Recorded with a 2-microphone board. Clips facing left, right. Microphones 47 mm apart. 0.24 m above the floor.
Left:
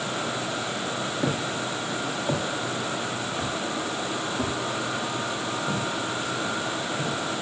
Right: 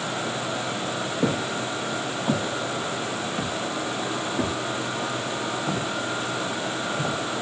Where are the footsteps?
85° right, 9.5 m; by 7.2 s 65° right (ahead or behind), 4.5 m.